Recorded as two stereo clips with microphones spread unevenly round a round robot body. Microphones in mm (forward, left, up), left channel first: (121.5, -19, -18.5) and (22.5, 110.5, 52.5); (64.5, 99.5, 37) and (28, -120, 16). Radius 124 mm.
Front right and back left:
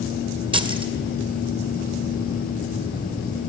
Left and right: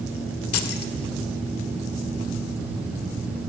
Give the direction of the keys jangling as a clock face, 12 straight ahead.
10 o'clock.